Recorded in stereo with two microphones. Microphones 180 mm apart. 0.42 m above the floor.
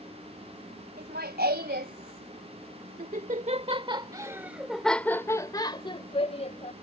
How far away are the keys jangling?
I don't hear keys jangling.